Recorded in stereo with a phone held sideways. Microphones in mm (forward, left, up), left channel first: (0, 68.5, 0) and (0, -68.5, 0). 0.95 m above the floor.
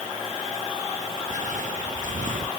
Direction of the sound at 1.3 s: 65° right (ahead or behind).